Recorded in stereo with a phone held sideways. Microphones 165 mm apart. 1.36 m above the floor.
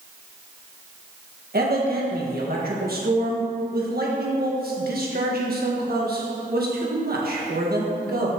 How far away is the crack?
No crack in this recording.